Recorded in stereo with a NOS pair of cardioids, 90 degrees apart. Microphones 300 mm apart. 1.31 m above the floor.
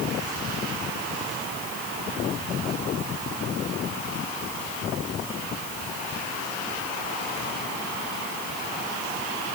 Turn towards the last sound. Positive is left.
No sound to turn to.